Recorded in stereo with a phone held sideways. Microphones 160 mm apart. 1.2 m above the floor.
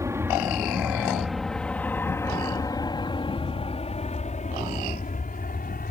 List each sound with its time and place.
0.0 s an aircraft: 15° right (ahead or behind); by 5.9 s 60° left (ahead or behind)